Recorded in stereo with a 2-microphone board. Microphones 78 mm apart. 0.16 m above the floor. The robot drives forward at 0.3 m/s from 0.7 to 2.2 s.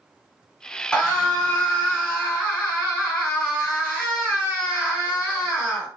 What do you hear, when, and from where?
0.9 s a scream: 15° left (ahead or behind), 1.8 m; by 5.9 s 10° left (ahead or behind), 2.0 m